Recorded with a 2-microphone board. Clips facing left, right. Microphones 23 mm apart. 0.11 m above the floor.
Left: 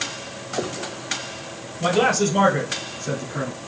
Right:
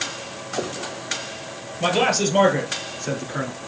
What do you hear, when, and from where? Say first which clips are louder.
1.8 s a man speaking: left 1 dB; 40° right (ahead or behind), 2.5 m; by 3.6 s 30° right (ahead or behind), 1.7 m